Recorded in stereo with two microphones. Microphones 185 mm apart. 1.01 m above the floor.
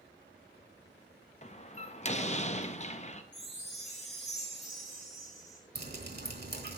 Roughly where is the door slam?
Left.